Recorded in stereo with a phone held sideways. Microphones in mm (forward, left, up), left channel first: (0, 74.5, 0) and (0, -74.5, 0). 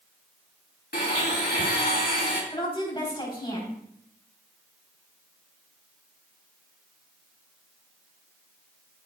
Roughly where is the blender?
Left.